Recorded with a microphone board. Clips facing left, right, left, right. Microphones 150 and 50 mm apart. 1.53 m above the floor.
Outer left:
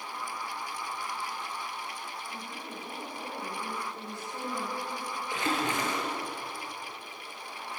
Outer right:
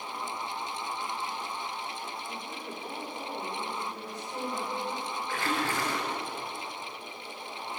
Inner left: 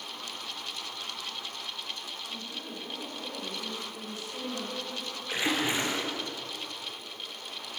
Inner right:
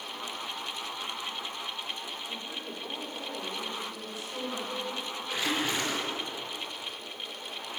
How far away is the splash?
About 4.5 m.